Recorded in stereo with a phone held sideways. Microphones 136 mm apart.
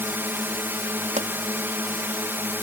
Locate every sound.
0.0 s a drone: 15° right (ahead or behind)
1.2 s a pop: 65° right (ahead or behind)